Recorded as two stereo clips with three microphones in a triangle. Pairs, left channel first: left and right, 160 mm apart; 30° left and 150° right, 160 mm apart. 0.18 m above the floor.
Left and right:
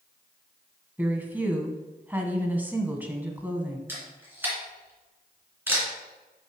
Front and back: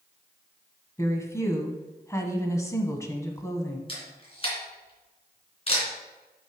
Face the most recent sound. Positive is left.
turn(degrees=-15)